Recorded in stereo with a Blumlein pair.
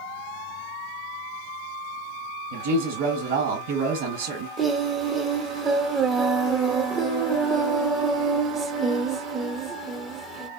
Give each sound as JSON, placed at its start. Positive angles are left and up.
{"t": 2.5, "sound": "a woman speaking", "azimuth_deg": -45, "distance_m": 1.2}
{"t": 4.6, "sound": "singing", "azimuth_deg": -25, "distance_m": 0.8}